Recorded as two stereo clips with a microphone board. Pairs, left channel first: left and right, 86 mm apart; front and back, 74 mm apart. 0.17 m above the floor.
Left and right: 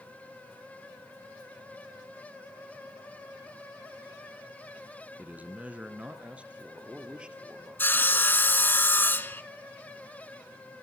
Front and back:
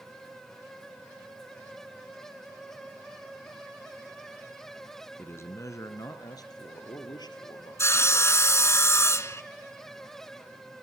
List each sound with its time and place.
5.2 s a man speaking: 35° right, 1.9 m; by 8.3 s 10° right, 5.5 m
7.8 s sawing: 30° left, 1.2 m